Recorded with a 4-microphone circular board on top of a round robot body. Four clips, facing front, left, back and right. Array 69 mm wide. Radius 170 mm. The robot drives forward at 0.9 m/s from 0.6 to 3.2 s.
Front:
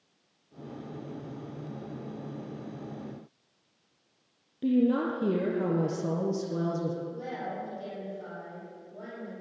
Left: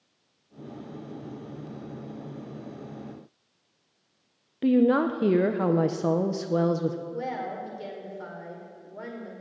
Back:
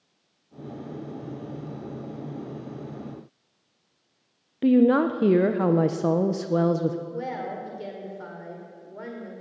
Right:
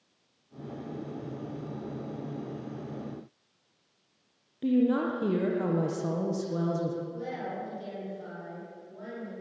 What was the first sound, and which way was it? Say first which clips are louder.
A woman speaking: left 4 dB, back 7 dB; 150° left.